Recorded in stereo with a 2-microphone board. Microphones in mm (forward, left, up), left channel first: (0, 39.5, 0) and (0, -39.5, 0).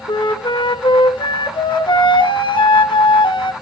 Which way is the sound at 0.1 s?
80° left.